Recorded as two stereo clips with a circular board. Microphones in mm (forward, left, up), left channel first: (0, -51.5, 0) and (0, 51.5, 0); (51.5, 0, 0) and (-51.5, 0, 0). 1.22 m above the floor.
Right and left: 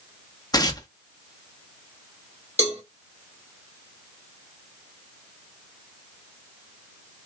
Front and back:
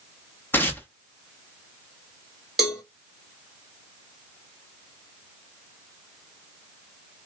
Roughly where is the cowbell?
Left.